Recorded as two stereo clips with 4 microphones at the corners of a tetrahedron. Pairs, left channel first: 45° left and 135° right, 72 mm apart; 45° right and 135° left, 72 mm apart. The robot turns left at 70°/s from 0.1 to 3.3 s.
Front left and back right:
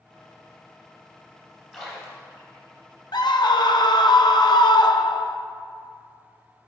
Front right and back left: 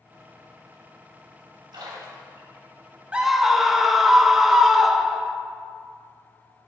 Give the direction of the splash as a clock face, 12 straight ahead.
7 o'clock.